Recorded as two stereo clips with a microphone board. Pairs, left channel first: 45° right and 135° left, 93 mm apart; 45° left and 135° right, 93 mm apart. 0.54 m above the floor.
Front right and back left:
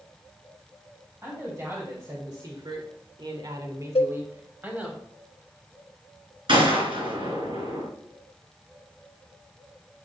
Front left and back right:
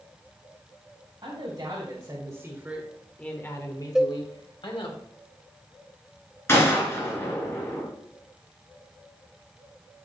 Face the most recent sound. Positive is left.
turn(degrees=110)